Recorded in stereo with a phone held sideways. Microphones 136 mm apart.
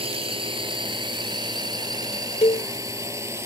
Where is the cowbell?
60° left (ahead or behind).